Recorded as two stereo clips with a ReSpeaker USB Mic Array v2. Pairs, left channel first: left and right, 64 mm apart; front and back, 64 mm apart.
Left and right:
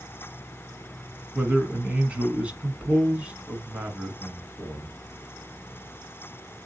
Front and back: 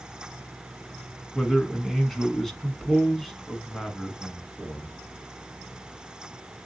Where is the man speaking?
80° right, 1.0 m.